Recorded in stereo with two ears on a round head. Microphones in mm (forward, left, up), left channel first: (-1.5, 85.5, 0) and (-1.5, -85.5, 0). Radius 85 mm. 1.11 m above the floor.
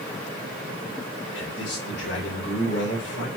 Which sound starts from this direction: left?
A man speaking, at 1.4 s.